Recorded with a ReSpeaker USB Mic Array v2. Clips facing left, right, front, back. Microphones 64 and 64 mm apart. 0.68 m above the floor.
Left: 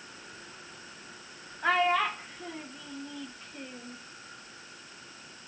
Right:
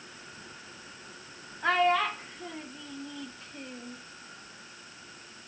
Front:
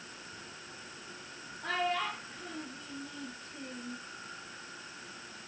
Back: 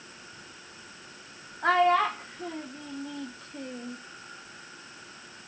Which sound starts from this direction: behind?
A child speaking, at 1.6 s.